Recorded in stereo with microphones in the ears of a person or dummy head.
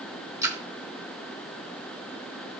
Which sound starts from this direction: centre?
A splash, at 0.4 s.